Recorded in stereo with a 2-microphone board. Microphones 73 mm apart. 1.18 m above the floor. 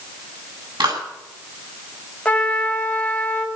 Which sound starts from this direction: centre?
A trumpet, at 2.2 s.